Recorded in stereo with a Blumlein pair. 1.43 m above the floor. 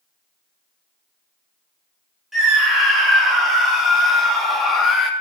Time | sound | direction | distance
2.3 | a scream | 10° right | 5 m